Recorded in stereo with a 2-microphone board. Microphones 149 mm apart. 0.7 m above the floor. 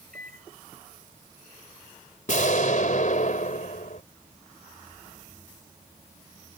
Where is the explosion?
60° left (ahead or behind).